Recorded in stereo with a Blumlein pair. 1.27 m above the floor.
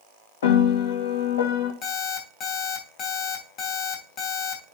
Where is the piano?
60° left, 2 m.